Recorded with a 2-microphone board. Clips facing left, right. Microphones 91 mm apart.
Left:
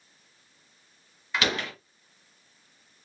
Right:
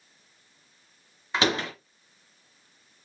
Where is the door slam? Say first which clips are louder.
Right 3 dB; 30° right (ahead or behind), 1.1 m.